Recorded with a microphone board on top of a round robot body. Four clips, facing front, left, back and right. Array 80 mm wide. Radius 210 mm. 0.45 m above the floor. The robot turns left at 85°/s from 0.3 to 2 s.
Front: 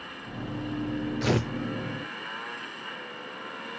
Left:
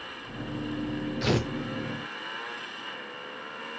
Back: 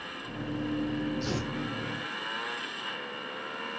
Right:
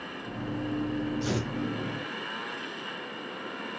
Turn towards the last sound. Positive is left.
turn(degrees=-35)